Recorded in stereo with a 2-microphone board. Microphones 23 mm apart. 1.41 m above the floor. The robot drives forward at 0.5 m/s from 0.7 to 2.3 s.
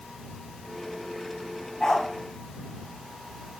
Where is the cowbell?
No cowbell in this recording.